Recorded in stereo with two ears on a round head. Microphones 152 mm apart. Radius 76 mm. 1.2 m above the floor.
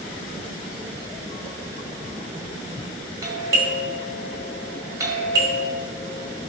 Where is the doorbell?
20° right (ahead or behind), 1.7 m.